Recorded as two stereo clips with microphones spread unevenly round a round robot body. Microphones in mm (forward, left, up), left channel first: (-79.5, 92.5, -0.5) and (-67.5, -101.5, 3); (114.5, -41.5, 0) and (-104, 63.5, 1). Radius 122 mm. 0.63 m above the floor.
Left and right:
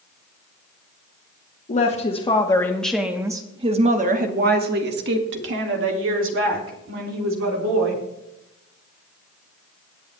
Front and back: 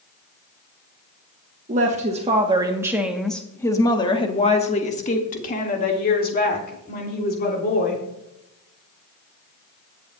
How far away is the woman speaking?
About 1.3 m.